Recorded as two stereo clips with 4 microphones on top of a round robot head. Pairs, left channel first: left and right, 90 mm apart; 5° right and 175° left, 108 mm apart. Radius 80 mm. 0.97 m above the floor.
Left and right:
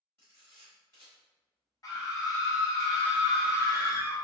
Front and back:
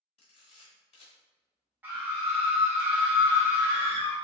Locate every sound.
0.2 s a camera shutter: 20° left, 1.1 m
1.8 s a scream: 110° left, 0.9 m